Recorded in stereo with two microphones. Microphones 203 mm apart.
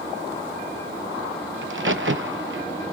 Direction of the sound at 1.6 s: 75° right (ahead or behind).